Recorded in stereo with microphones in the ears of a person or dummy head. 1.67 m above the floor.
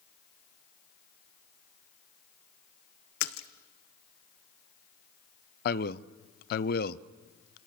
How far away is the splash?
About 0.9 m.